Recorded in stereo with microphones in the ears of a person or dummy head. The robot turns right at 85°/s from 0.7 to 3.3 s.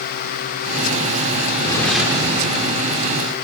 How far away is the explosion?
About 1.4 m.